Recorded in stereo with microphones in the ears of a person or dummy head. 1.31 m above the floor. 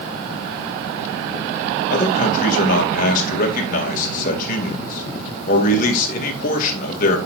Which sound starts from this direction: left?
A man speaking, at 1.9 s.